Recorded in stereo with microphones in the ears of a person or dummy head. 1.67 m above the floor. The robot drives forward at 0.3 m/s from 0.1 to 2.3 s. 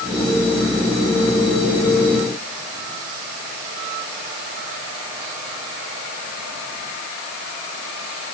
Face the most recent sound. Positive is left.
No sound to turn to.